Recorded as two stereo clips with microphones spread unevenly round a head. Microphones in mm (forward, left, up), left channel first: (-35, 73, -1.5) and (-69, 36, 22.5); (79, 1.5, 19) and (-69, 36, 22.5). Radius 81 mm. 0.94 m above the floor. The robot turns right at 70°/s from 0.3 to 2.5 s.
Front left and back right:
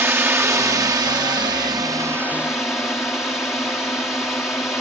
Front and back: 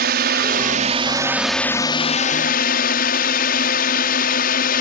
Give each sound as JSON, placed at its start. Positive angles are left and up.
{"t": 0.0, "sound": "a drone", "azimuth_deg": 175}